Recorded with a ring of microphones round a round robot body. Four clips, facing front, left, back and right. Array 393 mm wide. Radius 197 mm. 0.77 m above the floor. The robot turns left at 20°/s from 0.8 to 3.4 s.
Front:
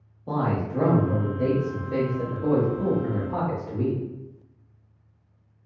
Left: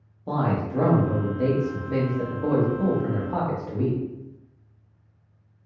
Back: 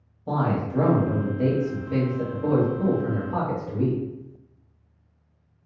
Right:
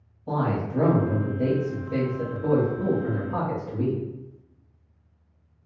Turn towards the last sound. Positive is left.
turn(degrees=80)